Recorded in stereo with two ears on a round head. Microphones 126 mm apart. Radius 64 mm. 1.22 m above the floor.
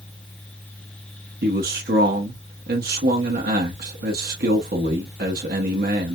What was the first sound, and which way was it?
A man speaking, 70° right (ahead or behind).